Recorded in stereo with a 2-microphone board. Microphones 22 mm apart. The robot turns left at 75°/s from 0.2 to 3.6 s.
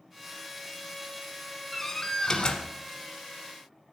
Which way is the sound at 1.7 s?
150° left.